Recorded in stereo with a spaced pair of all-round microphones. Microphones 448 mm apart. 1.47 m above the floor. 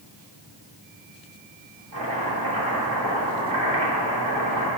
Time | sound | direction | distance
1.9 | chopping | 45° right (ahead or behind) | 2.5 m